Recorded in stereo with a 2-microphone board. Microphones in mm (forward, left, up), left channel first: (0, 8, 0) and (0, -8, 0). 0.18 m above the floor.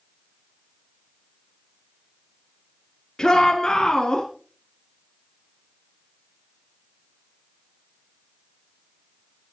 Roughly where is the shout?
Left.